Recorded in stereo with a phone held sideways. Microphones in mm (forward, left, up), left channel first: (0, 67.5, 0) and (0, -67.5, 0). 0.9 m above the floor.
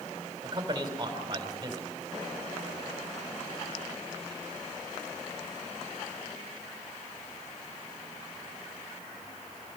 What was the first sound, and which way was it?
A man speaking, 30° right (ahead or behind).